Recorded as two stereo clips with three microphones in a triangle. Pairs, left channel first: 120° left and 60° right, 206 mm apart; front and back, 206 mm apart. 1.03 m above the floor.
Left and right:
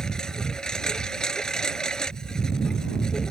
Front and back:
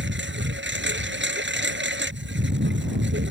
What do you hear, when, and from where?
0.0 s a lawn mower: 155° right